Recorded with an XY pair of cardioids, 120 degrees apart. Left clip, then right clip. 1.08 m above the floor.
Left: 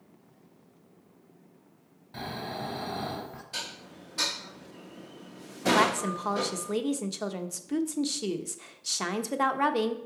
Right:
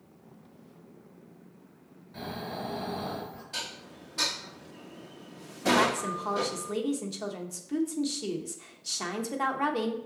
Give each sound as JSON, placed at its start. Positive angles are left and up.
{"t": 2.1, "sound": "snoring", "azimuth_deg": 55, "distance_m": 3.0}
{"t": 3.5, "sound": "dishes clattering", "azimuth_deg": 10, "distance_m": 0.7}
{"t": 5.7, "sound": "a woman speaking", "azimuth_deg": 25, "distance_m": 1.0}